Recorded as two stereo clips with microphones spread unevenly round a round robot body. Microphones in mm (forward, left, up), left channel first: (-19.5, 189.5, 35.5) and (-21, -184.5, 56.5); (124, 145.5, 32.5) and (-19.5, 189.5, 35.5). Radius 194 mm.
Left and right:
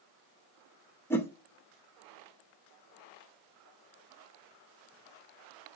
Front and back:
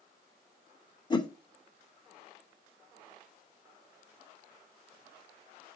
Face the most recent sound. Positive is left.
turn(degrees=15)